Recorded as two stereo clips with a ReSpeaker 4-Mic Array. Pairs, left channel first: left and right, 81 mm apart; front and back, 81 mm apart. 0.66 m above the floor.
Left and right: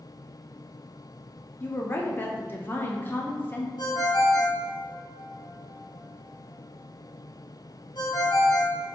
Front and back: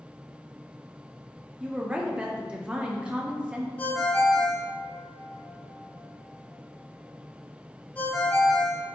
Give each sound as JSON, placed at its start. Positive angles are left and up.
{"t": 1.6, "sound": "a woman speaking", "azimuth_deg": 120, "distance_m": 0.5}
{"t": 3.8, "sound": "a ringtone", "azimuth_deg": 70, "distance_m": 1.7}